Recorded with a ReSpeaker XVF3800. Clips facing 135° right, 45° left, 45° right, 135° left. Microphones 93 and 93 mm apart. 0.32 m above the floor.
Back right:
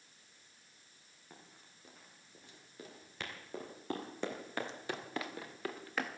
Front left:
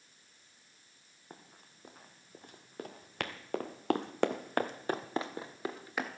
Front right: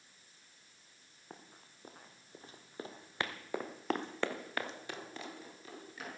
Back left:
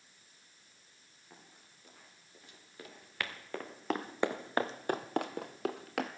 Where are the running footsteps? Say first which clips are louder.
Front left 4 dB, front right 5 dB; straight ahead, 3 m; by 6.1 s 125° left, 1.8 m.